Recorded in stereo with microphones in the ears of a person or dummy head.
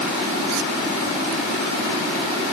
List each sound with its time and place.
Only background noise.